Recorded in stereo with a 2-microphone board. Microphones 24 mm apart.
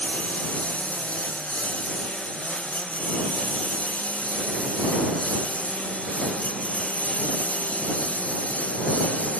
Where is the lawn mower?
65° left (ahead or behind).